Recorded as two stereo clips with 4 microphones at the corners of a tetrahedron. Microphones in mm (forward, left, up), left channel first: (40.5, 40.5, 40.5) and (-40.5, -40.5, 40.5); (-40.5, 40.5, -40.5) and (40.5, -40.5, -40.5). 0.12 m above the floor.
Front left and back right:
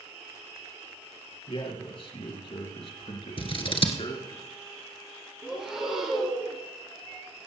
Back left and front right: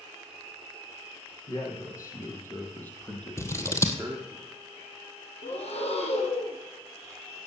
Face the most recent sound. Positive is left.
turn(degrees=140)